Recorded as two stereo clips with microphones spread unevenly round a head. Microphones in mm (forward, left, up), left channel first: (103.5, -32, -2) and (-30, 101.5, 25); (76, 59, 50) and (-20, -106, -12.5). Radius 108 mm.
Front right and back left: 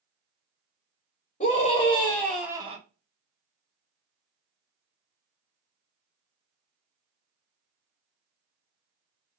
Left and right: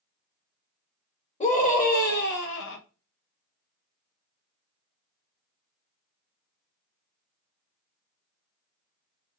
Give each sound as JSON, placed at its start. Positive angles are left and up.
{"t": 1.4, "sound": "a scream", "azimuth_deg": 0, "distance_m": 1.6}